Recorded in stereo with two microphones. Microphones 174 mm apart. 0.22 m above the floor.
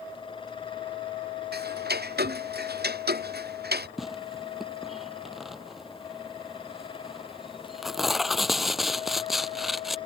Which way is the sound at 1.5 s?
70° right (ahead or behind).